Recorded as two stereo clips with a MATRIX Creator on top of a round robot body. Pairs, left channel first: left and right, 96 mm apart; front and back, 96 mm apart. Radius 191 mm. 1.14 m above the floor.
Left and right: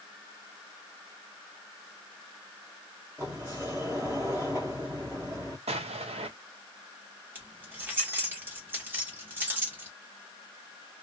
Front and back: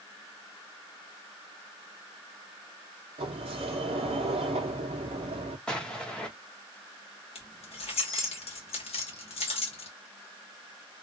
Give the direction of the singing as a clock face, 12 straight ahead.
No singing in this recording.